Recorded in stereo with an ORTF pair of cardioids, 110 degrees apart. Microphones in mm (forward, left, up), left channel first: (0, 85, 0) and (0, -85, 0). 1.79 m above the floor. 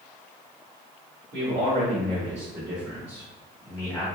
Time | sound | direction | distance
1.3 | a man speaking | 60° right | 1.8 m